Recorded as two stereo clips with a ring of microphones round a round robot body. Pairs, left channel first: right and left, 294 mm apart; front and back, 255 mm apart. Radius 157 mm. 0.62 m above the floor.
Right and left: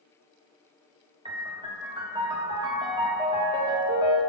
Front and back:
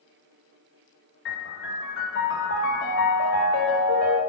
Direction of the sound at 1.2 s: 20° left.